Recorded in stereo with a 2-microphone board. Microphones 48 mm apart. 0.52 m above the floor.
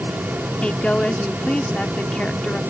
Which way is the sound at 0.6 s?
25° left (ahead or behind).